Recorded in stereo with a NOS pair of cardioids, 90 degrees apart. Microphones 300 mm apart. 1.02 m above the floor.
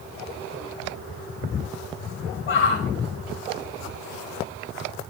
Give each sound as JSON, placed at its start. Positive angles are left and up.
{"t": 2.5, "sound": "a shout", "azimuth_deg": 45, "distance_m": 5.5}